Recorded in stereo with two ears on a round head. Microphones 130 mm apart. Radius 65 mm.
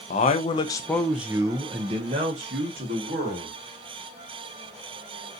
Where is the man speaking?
50° left (ahead or behind), 0.7 m; by 3.5 s 65° right (ahead or behind), 1.5 m.